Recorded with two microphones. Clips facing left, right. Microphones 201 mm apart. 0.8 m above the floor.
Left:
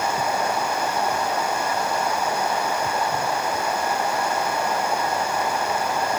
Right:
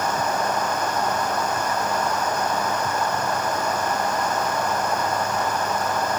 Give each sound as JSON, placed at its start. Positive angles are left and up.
{"t": 0.0, "sound": "running water", "side_deg": 10}